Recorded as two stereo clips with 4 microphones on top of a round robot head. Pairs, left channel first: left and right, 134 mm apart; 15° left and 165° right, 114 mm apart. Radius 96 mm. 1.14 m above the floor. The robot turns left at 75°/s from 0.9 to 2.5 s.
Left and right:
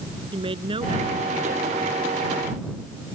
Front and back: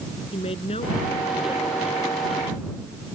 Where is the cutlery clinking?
No cutlery clinking in this recording.